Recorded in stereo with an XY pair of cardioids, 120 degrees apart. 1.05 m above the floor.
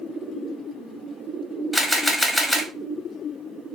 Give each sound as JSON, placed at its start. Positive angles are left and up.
{"t": 1.7, "sound": "a camera shutter", "azimuth_deg": 0, "distance_m": 1.1}